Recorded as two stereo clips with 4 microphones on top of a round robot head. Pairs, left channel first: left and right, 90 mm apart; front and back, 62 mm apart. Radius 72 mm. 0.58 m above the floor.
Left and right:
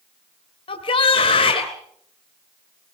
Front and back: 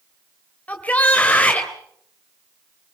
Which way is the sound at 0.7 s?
65° left.